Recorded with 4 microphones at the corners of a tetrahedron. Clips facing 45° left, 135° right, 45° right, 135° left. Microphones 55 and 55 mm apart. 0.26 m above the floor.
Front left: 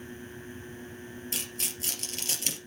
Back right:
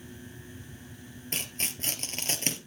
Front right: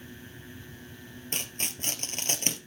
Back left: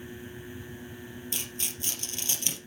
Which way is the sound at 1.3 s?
85° right.